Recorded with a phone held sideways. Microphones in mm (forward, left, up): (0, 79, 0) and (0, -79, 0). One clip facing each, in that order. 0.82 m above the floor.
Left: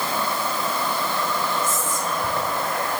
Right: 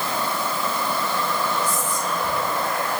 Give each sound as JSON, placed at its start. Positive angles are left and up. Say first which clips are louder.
{"t": 1.6, "sound": "whispering", "louder": "even", "side_deg": 50, "distance_m": 4.0}